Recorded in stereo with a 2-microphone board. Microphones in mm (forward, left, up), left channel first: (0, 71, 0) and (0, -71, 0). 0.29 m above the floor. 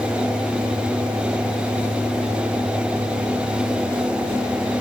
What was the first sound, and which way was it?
Only background noise.